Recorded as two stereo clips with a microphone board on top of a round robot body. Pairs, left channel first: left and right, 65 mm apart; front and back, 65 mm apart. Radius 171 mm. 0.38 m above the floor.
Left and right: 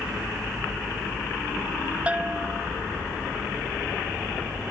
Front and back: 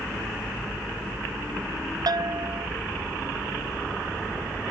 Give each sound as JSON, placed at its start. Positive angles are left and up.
{"t": 2.1, "sound": "a bell", "azimuth_deg": -160}